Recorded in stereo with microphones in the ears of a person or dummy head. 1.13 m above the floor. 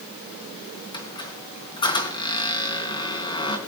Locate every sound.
0.9 s a squeak: 25° left (ahead or behind), 3.5 m